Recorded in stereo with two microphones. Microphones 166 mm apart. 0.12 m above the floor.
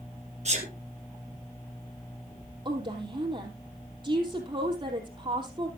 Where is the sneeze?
45° right (ahead or behind), 3 m.